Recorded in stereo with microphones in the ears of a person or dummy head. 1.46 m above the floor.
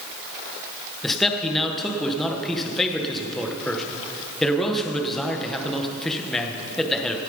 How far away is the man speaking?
About 1.1 m.